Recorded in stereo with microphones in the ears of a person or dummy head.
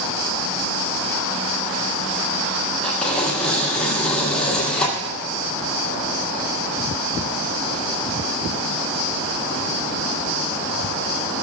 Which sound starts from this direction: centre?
Tearing paper, at 2.8 s.